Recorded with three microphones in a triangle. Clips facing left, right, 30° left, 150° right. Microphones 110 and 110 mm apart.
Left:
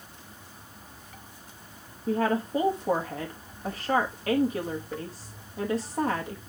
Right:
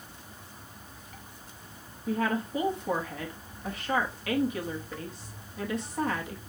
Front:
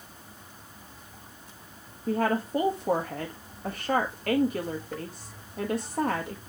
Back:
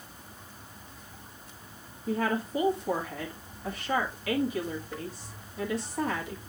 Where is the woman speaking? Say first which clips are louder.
Left 3 dB, front 3 dB; 45° left, 1.2 m.